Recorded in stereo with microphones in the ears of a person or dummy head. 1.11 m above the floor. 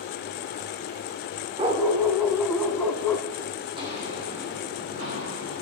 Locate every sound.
1.6 s a dog barking: 25° right (ahead or behind), 1.5 m; by 3.3 s 20° left (ahead or behind), 2.5 m
3.7 s footsteps: 25° right (ahead or behind), 3 m; by 5.6 s 45° right (ahead or behind), 4.5 m